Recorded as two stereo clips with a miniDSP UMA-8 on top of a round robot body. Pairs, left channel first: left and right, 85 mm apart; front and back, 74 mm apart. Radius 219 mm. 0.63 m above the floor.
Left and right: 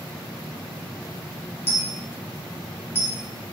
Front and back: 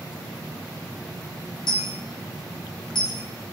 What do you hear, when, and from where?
1.7 s a dropped coin: 25° left, 1.1 m